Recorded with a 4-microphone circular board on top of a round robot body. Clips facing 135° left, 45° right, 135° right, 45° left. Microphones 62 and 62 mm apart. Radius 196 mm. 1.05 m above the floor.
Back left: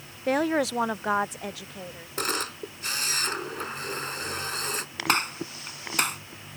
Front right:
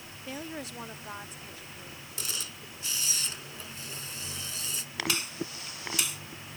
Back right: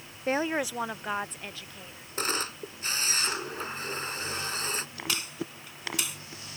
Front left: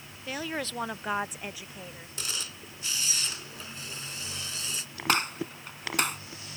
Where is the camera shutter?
175° left.